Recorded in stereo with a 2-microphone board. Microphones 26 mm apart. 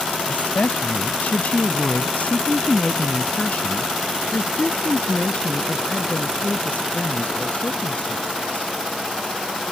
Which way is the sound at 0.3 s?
70° left (ahead or behind).